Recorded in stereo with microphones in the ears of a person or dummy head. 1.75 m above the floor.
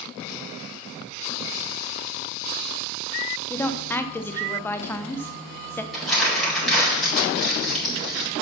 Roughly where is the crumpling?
Centre.